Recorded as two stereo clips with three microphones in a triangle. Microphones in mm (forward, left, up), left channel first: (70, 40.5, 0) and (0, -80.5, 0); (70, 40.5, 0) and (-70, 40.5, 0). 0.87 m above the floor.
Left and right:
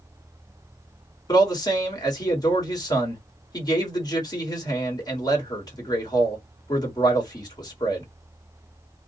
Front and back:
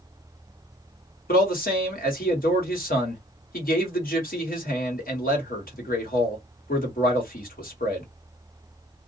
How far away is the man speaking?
About 1.4 m.